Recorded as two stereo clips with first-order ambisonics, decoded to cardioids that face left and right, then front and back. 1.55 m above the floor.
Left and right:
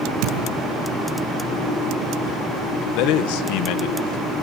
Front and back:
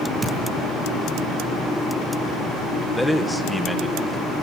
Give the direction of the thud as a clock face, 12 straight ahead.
4 o'clock.